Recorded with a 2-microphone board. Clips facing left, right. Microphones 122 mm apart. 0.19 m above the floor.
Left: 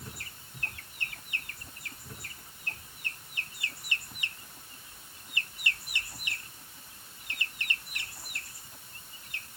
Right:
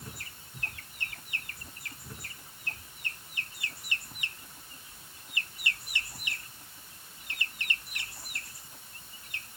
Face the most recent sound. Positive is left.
No sound to turn to.